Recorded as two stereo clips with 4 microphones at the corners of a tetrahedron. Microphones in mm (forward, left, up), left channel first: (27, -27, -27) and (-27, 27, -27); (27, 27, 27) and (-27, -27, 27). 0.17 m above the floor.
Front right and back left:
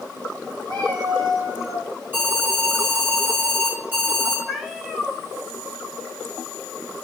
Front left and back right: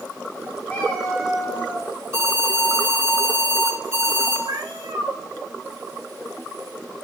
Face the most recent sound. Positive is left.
turn(degrees=-135)